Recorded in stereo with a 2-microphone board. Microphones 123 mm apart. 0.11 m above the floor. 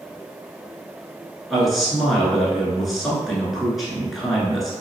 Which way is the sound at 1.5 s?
Centre (ahead or behind).